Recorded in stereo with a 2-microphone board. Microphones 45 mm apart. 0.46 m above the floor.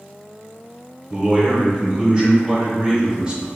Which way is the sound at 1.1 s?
15° right (ahead or behind).